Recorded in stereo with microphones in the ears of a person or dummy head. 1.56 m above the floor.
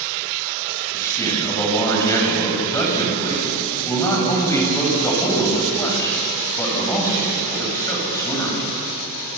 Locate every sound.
0.9 s a man speaking: 20° left (ahead or behind), 8 m